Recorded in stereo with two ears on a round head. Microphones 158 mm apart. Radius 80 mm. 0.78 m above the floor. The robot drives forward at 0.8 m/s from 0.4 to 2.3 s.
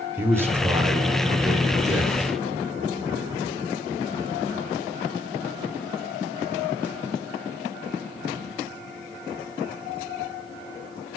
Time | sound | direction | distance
0.2 | a man speaking | 15° right (ahead or behind) | 3 m